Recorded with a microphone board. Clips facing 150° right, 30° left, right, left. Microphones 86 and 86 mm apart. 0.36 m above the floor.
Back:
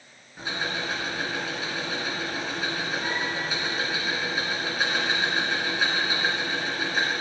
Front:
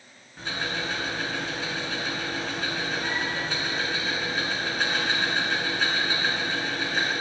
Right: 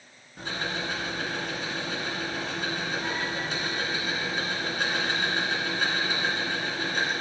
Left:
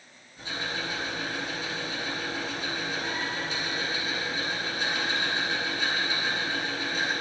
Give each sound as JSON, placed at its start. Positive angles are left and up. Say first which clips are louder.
{"t": 0.4, "sound": "ticking", "louder": "even, right 2 dB", "azimuth_deg": -70, "distance_m": 3.5}